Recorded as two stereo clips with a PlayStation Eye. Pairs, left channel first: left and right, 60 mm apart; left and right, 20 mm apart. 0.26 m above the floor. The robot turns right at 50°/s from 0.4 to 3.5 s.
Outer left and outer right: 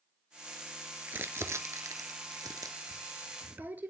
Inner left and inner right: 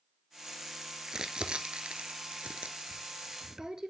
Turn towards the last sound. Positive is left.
turn(degrees=-30)  # may be behind; listen again after turning